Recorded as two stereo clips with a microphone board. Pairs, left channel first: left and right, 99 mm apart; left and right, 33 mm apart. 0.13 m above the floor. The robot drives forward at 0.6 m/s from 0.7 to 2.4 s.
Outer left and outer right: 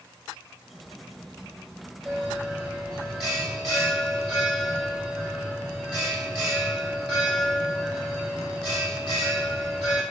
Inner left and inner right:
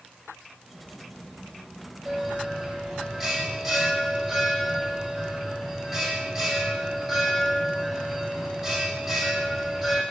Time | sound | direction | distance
2.0 | a bell | 5° right (ahead or behind) | 6 m